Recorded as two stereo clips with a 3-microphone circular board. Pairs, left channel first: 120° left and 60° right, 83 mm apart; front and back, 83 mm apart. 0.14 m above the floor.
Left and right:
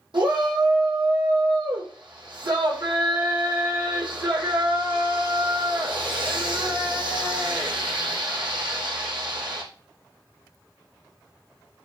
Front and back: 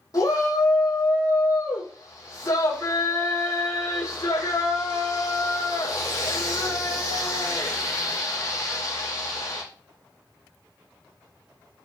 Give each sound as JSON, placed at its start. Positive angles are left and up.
{"t": 0.1, "sound": "a shout", "azimuth_deg": -45, "distance_m": 5.5}